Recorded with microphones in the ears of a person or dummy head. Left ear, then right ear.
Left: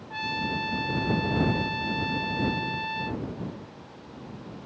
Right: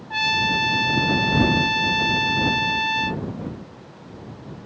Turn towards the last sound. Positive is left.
turn(degrees=-25)  # may be behind; listen again after turning